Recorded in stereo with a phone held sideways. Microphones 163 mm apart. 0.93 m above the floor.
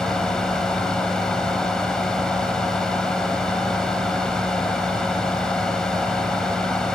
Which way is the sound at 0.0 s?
5° left (ahead or behind).